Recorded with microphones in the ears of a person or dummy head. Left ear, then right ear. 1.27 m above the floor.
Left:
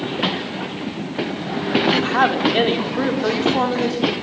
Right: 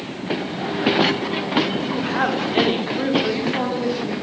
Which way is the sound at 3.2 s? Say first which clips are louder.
Left 4 dB; 40° left (ahead or behind).